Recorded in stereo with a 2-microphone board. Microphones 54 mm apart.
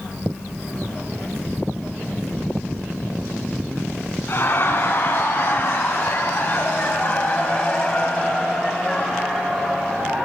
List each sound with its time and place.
4.3 s laughter: 45° left (ahead or behind), 2 m; by 10.3 s 5° right (ahead or behind), 2.0 m